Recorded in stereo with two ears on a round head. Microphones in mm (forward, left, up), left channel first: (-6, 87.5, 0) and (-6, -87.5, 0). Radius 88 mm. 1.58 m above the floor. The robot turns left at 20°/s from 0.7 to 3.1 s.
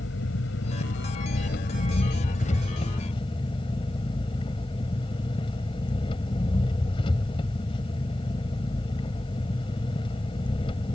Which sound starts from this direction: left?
An engine running, at 0.0 s.